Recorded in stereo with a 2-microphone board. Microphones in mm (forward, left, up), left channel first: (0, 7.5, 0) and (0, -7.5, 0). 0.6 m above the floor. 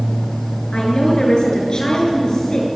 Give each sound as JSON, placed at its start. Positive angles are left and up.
{"t": 0.7, "sound": "a woman speaking", "side_deg": 85, "distance_m": 8.0}